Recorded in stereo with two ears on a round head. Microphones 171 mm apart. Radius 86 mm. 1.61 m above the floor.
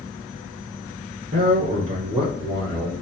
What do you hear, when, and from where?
1.3 s a man speaking: 40° right (ahead or behind), 1.0 m; by 2.9 s 5° left (ahead or behind), 2.5 m